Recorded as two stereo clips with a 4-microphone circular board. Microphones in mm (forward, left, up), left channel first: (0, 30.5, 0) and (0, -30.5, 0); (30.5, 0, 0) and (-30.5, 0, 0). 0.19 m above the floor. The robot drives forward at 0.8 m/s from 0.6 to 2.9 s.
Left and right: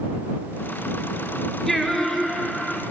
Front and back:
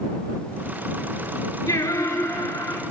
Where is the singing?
5° left, 2.5 m; by 2.8 s 10° left, 1.6 m.